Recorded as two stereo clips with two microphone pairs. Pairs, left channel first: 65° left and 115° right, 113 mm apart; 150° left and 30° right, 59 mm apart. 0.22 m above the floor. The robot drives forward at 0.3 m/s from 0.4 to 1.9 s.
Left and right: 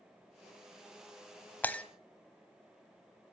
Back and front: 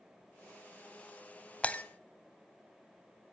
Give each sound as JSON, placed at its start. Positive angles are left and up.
{"t": 1.6, "sound": "breaking glass", "azimuth_deg": 115, "distance_m": 0.6}